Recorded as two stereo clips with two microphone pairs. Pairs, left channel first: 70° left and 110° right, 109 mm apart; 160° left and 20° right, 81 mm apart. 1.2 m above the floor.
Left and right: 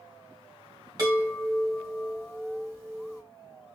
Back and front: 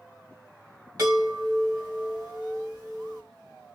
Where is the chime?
55° right, 3 m.